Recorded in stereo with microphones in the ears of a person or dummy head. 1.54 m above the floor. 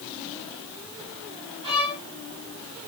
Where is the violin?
30° right (ahead or behind), 2.5 m.